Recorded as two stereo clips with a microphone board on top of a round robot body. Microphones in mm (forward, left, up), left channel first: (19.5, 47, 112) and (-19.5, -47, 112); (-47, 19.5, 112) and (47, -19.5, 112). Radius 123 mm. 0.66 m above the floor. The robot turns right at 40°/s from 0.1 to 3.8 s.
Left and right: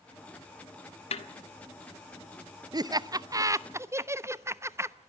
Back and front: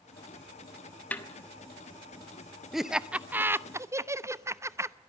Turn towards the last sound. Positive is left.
turn(degrees=-65)